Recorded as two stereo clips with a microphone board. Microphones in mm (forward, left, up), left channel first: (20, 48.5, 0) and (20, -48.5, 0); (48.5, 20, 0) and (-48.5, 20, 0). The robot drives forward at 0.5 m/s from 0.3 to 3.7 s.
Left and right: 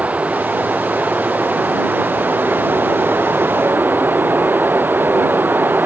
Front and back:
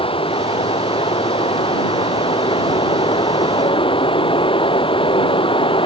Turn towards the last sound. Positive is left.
turn(degrees=-20)